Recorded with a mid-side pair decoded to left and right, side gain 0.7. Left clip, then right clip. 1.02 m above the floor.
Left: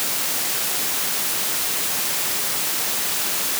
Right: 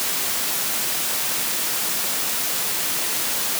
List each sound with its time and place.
Only background noise.